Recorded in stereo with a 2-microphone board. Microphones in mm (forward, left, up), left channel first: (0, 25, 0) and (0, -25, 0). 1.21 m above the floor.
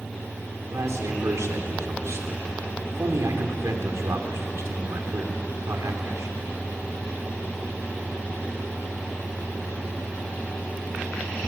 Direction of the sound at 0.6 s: 75° right (ahead or behind).